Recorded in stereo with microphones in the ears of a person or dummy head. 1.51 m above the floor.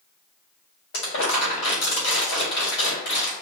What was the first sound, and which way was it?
Crumpling, 70° left (ahead or behind).